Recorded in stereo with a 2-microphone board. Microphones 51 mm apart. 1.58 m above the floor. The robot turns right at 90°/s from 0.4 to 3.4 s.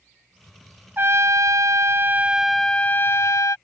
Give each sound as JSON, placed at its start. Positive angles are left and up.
{"t": 1.0, "sound": "a trumpet", "azimuth_deg": -145}